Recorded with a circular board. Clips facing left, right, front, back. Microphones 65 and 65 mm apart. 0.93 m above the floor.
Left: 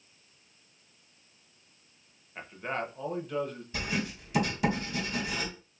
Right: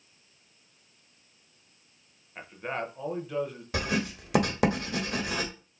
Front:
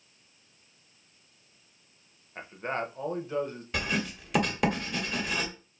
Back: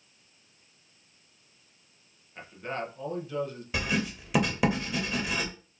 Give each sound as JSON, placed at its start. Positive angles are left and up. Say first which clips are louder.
{"t": 2.4, "sound": "a man speaking", "louder": "even, front 2 dB", "azimuth_deg": -5, "distance_m": 0.6}
{"t": 3.7, "sound": "writing", "louder": "right 4 dB, back 1 dB", "azimuth_deg": -95, "distance_m": 0.9}